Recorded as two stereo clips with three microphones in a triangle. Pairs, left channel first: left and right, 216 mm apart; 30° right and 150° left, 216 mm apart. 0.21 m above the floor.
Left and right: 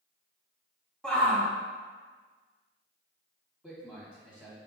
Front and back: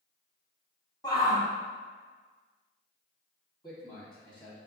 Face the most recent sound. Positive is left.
turn(degrees=-15)